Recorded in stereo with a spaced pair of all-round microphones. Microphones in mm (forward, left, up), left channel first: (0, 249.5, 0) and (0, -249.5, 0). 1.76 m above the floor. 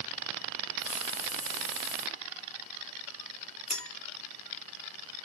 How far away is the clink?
About 2.5 m.